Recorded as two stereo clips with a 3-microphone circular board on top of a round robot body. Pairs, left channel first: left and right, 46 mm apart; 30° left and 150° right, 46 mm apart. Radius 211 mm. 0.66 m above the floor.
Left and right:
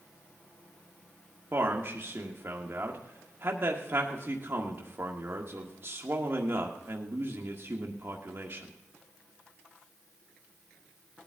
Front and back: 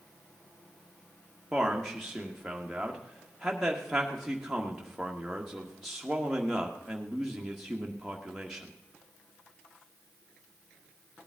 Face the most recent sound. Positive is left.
turn(degrees=-65)